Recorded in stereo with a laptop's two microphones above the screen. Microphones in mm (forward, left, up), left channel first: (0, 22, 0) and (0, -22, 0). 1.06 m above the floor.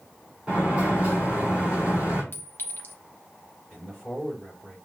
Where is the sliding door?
25° right (ahead or behind), 3 m.